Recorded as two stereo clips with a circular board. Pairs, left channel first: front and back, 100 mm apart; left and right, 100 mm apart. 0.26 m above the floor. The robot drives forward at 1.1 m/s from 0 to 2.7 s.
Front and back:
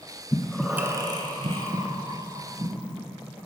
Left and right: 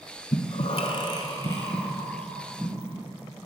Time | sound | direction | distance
0.3 | breathing | 60° left | 0.6 m